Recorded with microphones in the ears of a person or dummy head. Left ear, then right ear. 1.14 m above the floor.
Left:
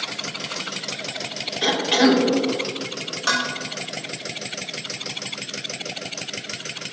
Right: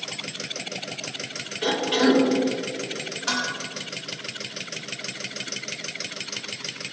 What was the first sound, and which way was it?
A cough, 60° left (ahead or behind).